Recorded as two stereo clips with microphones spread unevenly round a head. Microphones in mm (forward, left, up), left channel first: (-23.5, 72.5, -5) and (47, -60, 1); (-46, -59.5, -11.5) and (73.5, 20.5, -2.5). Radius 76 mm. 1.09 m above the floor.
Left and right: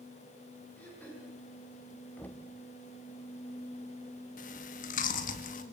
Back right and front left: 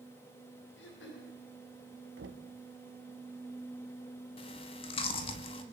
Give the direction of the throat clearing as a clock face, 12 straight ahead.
5 o'clock.